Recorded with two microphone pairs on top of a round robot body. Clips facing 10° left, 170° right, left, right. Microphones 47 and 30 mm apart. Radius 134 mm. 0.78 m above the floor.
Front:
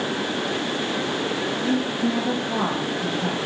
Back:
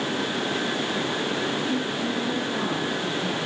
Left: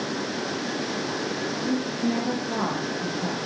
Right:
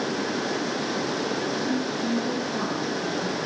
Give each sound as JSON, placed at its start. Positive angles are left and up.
{"t": 1.6, "sound": "a woman speaking", "azimuth_deg": 40, "distance_m": 6.5}